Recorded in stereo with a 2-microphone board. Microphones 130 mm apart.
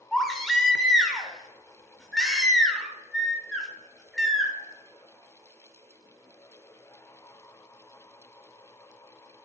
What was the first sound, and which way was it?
A baby crying, centre (ahead or behind).